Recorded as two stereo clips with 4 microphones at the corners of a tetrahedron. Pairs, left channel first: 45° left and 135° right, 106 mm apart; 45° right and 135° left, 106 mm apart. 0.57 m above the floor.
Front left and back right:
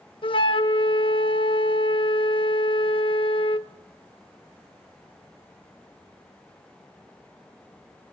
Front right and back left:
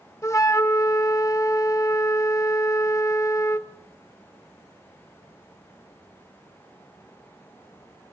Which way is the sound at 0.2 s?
15° left.